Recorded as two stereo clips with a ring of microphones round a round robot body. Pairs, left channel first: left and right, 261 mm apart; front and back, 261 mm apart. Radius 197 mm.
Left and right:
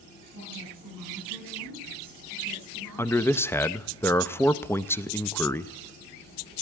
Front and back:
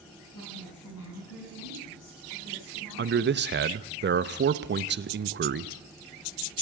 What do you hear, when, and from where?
0.3 s a woman speaking: 50° right, 5.5 m; by 3.5 s 30° right, 5.5 m
3.0 s a man speaking: 170° left, 0.6 m